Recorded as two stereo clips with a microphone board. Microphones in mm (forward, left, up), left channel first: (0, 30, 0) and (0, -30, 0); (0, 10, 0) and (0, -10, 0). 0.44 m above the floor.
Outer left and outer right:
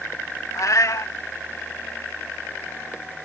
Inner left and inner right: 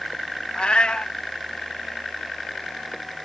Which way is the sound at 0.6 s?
60° left (ahead or behind).